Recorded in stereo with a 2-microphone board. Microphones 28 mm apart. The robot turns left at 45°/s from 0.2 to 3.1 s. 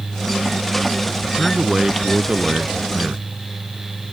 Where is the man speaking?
10° right; by 3.3 s 95° right.